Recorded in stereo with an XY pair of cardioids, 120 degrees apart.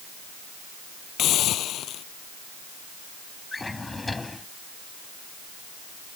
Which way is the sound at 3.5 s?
15° left.